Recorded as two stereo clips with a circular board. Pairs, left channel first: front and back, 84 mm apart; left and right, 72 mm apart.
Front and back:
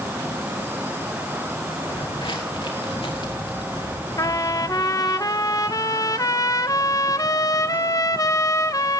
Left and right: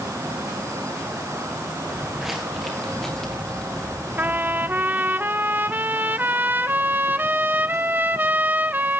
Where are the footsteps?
10° right, 3.5 m; by 4.8 s 20° left, 5 m.